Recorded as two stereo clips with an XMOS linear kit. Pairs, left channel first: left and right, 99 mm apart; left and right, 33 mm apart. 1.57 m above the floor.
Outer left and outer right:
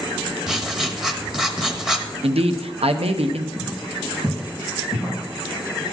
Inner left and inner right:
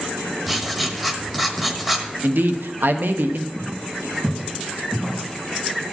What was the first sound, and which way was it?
Writing, 5° right (ahead or behind).